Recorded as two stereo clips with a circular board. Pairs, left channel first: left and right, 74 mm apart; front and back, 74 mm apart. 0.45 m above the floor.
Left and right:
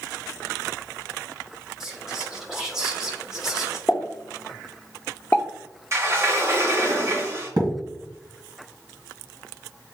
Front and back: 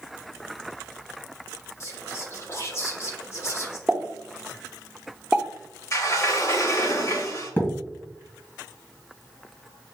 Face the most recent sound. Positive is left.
turn(degrees=-65)